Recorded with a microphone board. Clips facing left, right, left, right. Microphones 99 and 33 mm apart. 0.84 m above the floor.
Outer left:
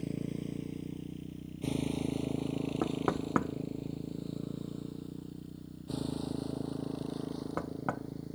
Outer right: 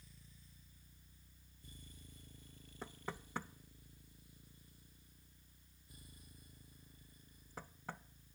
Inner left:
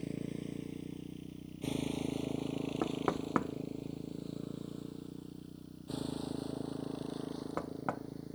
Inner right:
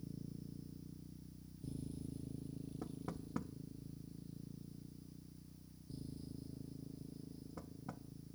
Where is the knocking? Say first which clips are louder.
Outer left 14 dB, inner left 14 dB; 65° left (ahead or behind).